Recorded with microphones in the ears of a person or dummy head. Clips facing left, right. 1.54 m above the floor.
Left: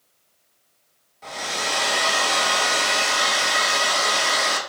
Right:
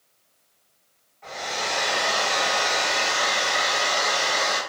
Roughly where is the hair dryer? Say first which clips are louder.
Left 1 dB; left.